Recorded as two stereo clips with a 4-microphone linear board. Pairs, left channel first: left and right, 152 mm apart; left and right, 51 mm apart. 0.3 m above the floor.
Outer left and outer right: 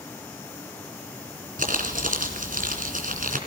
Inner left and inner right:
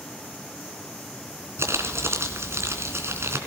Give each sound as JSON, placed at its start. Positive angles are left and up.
{"t": 1.6, "sound": "crumpling", "side_deg": -60, "distance_m": 3.0}